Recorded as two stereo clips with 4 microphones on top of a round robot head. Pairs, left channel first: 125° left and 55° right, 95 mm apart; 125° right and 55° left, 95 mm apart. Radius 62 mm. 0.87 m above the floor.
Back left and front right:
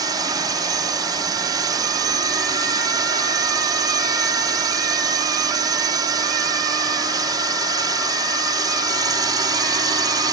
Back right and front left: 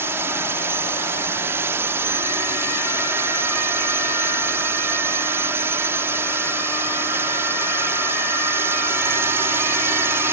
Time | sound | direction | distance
0.0 | a drone | 10° right | ?